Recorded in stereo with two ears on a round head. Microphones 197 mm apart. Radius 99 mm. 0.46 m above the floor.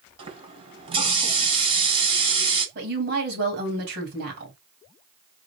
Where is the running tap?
25° right (ahead or behind), 2.5 m.